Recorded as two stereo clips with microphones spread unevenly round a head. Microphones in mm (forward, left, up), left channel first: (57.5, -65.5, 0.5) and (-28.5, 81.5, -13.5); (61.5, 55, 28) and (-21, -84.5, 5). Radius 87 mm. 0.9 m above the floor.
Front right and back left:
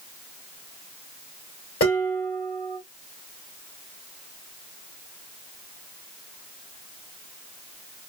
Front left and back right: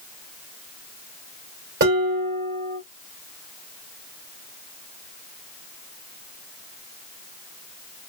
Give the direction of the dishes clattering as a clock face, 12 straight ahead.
3 o'clock.